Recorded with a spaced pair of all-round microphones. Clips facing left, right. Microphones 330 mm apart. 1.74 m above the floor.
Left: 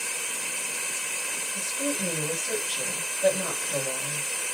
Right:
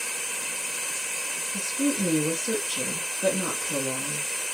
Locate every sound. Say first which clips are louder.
1.5 s a woman speaking: right 6 dB; 55° right (ahead or behind), 0.7 m